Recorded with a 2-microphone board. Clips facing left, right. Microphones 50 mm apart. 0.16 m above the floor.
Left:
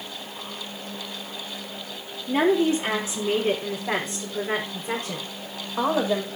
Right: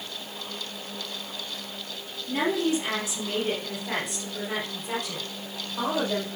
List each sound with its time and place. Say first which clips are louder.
2.3 s a woman speaking: left 5 dB; 40° left (ahead or behind), 4 m; by 6.3 s 35° left (ahead or behind), 6.5 m